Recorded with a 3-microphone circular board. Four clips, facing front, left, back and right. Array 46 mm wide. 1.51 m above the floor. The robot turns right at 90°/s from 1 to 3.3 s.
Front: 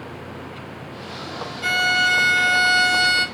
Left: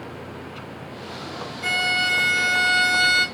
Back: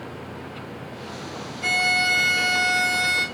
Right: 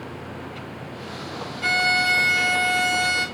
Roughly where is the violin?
Right.